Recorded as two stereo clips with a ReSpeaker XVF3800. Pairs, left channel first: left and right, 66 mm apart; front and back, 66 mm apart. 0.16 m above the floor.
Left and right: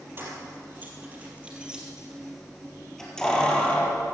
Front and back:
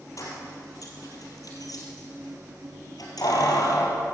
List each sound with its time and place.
0.2 s keys jangling: 35° right, 3.5 m; by 4.0 s 20° left, 3 m